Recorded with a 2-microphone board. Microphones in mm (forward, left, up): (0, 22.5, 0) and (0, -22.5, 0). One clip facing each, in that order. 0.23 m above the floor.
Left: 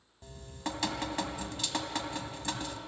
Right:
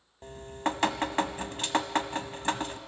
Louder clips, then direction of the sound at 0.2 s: Right 8 dB; 40° right (ahead or behind).